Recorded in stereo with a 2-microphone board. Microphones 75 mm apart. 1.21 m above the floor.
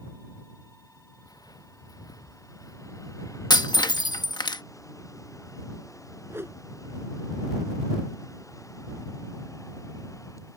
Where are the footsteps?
55° left (ahead or behind); by 3.4 s 45° left (ahead or behind).